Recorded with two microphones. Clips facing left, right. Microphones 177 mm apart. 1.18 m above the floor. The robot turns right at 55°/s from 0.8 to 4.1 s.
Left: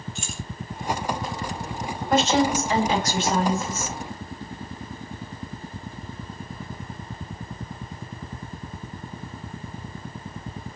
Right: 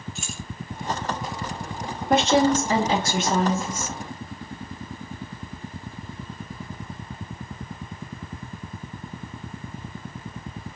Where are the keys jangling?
Centre (ahead or behind), 0.5 m.